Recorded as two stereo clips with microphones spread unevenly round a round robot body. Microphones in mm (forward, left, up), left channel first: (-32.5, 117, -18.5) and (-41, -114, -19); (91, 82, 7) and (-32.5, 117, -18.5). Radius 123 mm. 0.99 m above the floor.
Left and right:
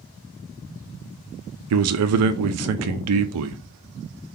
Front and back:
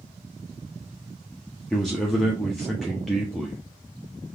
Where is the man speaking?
110° right, 0.5 m.